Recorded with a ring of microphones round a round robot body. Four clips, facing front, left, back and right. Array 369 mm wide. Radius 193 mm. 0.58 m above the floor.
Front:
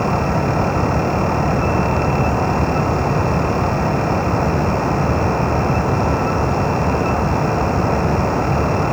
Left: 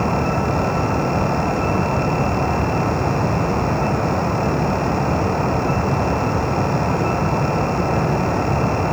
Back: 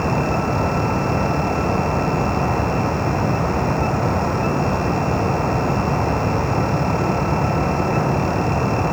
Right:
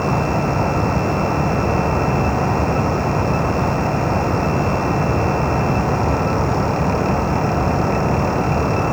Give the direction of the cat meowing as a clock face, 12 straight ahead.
I don't hear a cat meowing.